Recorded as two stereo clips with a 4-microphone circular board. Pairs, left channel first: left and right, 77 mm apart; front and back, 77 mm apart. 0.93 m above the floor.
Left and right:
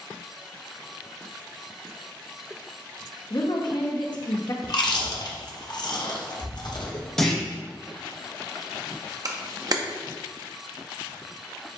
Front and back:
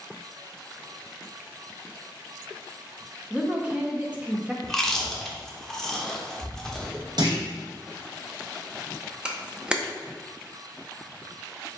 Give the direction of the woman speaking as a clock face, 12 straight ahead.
8 o'clock.